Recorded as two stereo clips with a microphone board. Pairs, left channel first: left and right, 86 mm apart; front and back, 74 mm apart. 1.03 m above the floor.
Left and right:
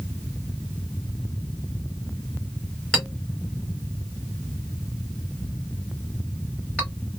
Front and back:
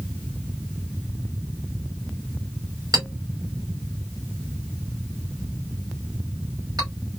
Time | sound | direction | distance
2.9 | a clink | 170° left | 2.5 m